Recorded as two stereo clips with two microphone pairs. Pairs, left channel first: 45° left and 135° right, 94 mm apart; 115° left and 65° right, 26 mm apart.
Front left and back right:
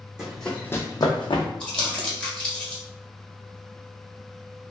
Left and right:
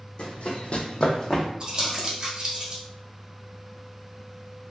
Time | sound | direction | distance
0.2 | running footsteps | 140° left | 0.9 m
1.6 | crumpling | 30° right | 1.1 m